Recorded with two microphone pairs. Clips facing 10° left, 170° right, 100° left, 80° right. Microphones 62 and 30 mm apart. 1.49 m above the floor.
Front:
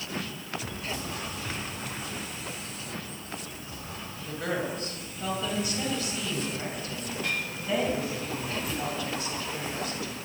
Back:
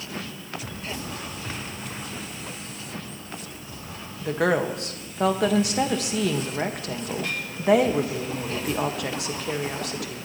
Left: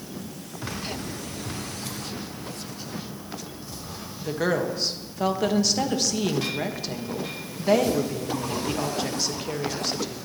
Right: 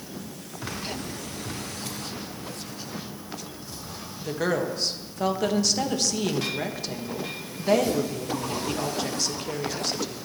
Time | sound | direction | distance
4.2 | a woman speaking | 175° right | 1.2 m